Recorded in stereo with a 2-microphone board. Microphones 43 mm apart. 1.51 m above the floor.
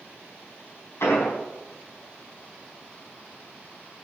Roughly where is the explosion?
Left.